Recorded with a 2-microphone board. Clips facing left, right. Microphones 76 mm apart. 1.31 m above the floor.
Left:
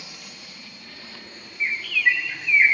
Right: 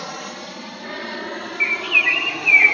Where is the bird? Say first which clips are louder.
Right 1 dB; 45° left (ahead or behind).